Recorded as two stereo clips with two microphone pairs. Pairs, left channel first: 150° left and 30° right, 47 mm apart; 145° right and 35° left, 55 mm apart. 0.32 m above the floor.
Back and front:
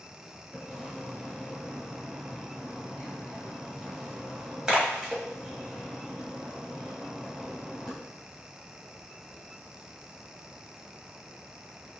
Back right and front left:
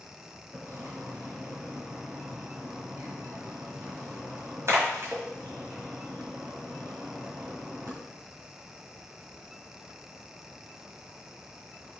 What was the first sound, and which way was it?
A splash, 45° left.